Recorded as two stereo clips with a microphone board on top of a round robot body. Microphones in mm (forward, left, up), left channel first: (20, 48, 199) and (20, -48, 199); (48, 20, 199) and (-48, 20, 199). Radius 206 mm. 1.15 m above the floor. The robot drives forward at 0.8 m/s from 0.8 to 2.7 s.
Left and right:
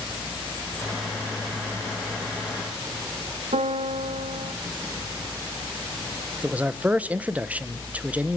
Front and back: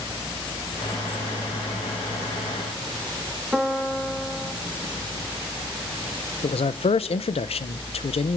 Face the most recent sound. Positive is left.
turn(degrees=-15)